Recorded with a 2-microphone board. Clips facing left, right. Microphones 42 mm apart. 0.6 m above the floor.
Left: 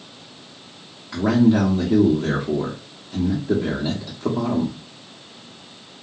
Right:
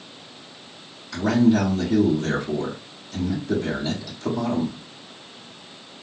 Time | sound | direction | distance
1.1 | a man speaking | 35° left (ahead or behind) | 1.2 m